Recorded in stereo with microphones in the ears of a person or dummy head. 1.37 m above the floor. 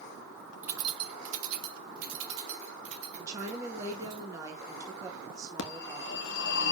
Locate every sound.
0.6 s keys jangling: 10° right (ahead or behind), 0.8 m; by 4.2 s 80° right, 3.5 m
3.2 s a woman speaking: 20° right (ahead or behind), 2 m
5.6 s a phone ringing: 70° left (ahead or behind), 1.3 m